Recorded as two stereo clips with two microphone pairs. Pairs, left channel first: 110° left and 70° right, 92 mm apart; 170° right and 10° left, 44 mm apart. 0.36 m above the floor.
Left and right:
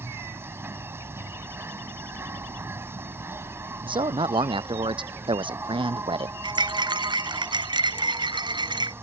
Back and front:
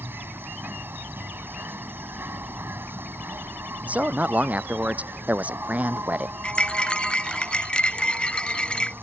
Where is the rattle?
105° right.